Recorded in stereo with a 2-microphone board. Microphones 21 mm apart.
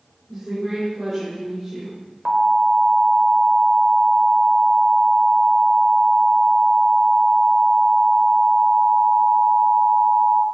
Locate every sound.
0.3 s a woman speaking: 10° right (ahead or behind), 4.5 m
2.2 s an alarm: 25° right (ahead or behind), 1.8 m